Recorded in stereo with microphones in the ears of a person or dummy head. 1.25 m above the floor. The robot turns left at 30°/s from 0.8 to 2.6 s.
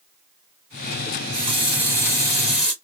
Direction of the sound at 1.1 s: 125° right.